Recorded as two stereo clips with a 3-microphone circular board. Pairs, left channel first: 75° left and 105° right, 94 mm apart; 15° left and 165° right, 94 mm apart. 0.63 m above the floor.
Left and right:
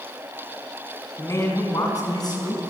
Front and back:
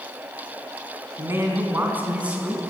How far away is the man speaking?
About 5.5 m.